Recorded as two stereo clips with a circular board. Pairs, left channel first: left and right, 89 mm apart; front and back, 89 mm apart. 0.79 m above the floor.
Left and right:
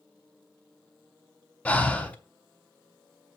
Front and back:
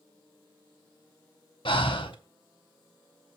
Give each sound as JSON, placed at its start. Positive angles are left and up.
{"t": 1.6, "sound": "breathing", "azimuth_deg": 15, "distance_m": 0.8}